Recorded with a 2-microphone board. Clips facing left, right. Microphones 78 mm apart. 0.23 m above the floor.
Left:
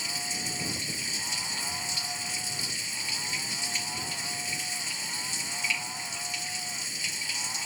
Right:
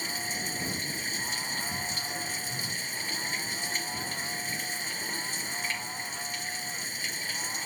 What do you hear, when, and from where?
0.0 s running water: 45° right (ahead or behind)